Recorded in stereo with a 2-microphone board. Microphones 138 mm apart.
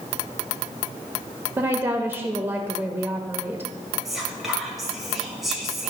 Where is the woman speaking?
15° right (ahead or behind), 0.8 m.